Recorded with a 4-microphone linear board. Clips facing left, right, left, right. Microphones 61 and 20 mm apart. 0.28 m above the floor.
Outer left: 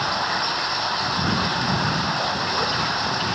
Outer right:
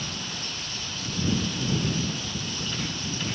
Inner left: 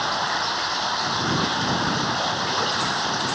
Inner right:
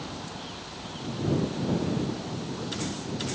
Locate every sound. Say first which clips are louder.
0.0 s running water: outer left 13 dB, inner left 15 dB; 60° left (ahead or behind)